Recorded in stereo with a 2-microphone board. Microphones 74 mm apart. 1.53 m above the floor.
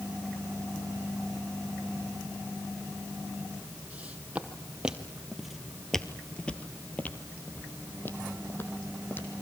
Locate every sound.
3.9 s footsteps: 20° right (ahead or behind), 2.5 m; by 9.3 s 30° left (ahead or behind), 3.5 m